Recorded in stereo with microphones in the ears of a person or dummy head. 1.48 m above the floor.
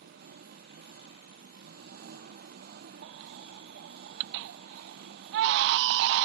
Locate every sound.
0.0 s an engine running: 50° right (ahead or behind)
3.0 s a baby crying: 70° right (ahead or behind)